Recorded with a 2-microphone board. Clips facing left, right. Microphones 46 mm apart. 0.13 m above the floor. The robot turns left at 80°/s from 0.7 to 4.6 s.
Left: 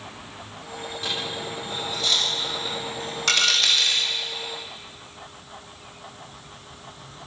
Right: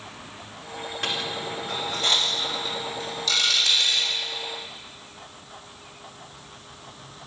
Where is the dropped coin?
60° right (ahead or behind), 7.5 m; by 4.1 s 55° left (ahead or behind), 7.5 m.